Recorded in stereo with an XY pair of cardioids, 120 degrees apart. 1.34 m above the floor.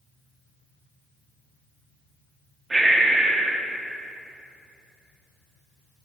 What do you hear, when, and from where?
2.7 s breathing: 15° right, 1.1 m